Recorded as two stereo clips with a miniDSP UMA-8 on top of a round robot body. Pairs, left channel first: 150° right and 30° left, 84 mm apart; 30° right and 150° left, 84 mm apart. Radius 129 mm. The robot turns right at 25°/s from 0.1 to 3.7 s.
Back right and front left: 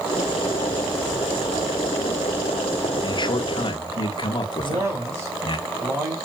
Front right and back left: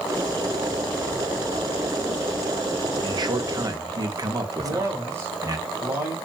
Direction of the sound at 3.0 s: Straight behind.